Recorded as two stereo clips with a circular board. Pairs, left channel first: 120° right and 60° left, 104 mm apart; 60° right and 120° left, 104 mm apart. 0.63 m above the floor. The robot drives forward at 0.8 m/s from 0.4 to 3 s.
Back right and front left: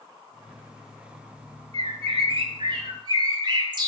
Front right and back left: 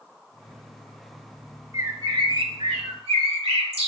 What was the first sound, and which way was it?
A bird, 65° left.